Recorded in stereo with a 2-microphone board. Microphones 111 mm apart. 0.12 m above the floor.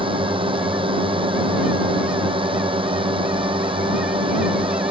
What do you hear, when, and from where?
0.0 s a drone: 50° right (ahead or behind)